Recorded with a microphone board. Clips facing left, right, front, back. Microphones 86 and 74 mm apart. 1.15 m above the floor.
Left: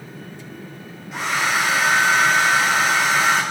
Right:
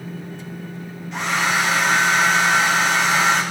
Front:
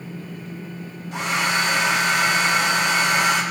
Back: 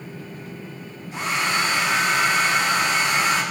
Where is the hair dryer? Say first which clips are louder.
Right 1 dB, front 1 dB; 5° left, 3 m.